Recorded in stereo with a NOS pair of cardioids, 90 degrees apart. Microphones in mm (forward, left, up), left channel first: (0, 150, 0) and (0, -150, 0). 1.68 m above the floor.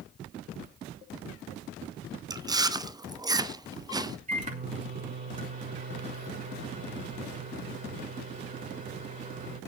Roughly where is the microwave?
Ahead right.